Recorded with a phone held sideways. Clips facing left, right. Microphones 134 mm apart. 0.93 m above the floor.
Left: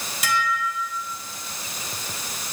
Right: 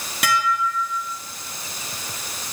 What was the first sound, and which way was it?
Dishes clattering, 65° right (ahead or behind).